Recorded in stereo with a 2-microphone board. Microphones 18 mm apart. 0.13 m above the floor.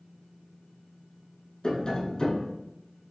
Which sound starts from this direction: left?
Tapping, at 1.6 s.